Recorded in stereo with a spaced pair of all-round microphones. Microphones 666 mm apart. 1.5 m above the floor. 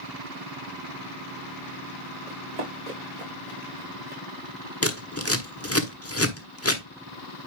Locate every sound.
2.3 s running footsteps: 70° right (ahead or behind), 5 m; by 4.2 s 75° right (ahead or behind), 6 m
4.8 s scissors: 20° left (ahead or behind), 1.1 m